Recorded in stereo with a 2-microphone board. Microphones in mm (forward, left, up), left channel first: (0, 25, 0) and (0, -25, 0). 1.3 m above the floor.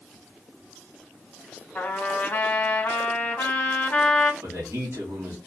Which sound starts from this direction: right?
A man speaking, at 4.4 s.